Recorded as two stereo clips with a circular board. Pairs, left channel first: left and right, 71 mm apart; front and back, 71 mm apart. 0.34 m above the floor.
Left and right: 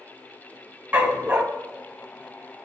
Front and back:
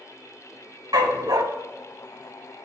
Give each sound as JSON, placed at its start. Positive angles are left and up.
{"t": 0.9, "sound": "a dog barking", "azimuth_deg": -155, "distance_m": 0.8}